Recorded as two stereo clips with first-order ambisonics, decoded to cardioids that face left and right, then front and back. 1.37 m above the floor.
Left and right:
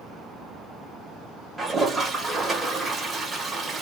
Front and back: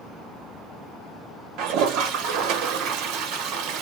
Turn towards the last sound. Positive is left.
turn(degrees=-170)